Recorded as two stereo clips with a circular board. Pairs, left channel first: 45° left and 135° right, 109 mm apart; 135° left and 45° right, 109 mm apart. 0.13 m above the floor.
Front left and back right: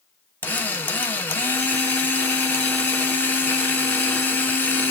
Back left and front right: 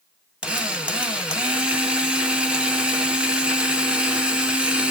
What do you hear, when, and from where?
0.4 s a drill: 15° left, 0.8 m